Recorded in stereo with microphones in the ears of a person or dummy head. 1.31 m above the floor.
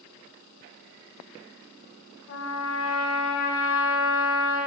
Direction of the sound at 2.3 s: 75° left (ahead or behind).